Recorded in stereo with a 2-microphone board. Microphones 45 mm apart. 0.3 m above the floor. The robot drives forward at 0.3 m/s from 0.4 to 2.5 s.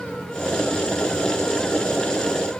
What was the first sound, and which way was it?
Only background noise.